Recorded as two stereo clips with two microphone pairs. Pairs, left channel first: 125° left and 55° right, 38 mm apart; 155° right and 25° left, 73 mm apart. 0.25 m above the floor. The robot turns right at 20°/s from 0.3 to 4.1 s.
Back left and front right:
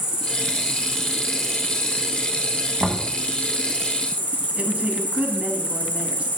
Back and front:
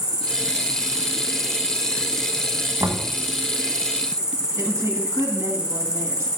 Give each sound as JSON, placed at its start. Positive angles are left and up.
{"t": 0.0, "sound": "an insect", "azimuth_deg": 20, "distance_m": 2.5}
{"t": 2.8, "sound": "knocking", "azimuth_deg": 5, "distance_m": 1.5}
{"t": 4.6, "sound": "a woman speaking", "azimuth_deg": -15, "distance_m": 2.0}